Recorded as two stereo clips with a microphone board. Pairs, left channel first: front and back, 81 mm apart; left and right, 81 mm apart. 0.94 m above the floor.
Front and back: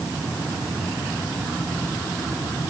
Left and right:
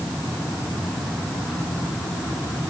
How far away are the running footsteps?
No running footsteps in this recording.